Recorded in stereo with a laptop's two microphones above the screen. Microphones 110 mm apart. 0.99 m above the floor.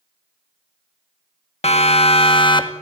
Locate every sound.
1.6 s a siren: 70° left (ahead or behind), 2 m; by 2.7 s 40° left (ahead or behind), 2.0 m